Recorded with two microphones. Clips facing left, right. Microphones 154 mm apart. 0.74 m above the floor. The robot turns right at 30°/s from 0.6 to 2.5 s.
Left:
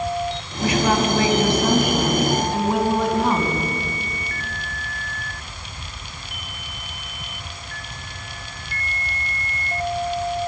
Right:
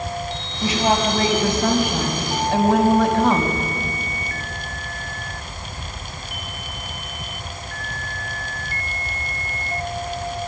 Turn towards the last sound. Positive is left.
turn(degrees=-95)